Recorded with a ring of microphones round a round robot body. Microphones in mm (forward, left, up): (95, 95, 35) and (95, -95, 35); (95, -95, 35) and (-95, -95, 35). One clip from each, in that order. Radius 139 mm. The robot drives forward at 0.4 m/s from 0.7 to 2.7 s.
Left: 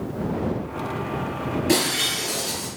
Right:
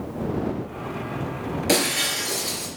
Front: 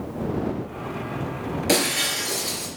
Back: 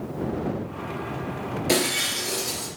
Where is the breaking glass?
65° right, 4.5 m; by 2.7 s 70° right, 4.5 m.